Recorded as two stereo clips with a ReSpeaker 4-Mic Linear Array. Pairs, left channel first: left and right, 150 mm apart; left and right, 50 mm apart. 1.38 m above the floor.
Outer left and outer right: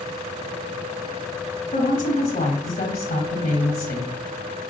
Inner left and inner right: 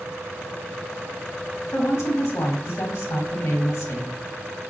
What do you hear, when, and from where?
1.7 s a woman speaking: 75° left (ahead or behind), 0.8 m